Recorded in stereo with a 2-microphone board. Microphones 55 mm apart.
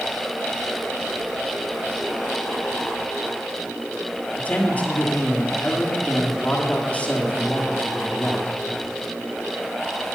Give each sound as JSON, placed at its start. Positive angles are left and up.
{"t": 4.4, "sound": "a man speaking", "side_deg": 30, "distance_m": 1.6}